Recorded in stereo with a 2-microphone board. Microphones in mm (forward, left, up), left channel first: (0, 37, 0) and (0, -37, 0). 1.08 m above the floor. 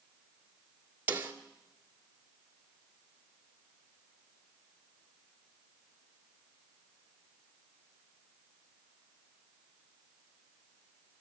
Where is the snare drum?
25° right (ahead or behind), 2 m.